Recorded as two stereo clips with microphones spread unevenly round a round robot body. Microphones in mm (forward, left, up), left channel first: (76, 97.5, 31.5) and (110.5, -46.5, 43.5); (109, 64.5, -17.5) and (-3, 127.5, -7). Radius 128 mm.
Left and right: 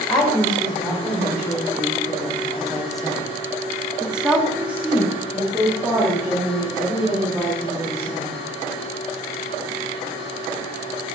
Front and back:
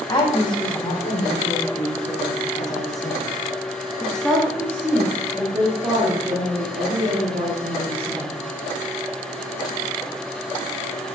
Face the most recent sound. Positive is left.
turn(degrees=-160)